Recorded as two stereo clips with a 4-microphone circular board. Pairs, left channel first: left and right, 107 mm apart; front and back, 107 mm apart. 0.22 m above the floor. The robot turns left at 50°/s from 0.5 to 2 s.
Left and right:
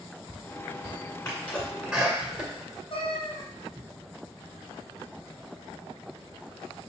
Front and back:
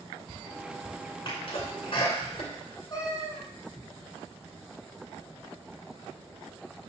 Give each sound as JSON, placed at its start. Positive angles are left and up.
{"t": 1.2, "sound": "a sneeze", "azimuth_deg": 25, "distance_m": 2.0}
{"t": 2.9, "sound": "a cat meowing", "azimuth_deg": 55, "distance_m": 1.9}